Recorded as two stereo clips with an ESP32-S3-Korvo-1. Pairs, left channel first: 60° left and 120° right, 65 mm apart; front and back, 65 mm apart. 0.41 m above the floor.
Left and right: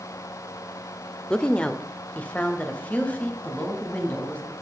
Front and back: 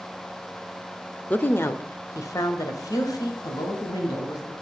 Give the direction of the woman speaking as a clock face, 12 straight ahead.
12 o'clock.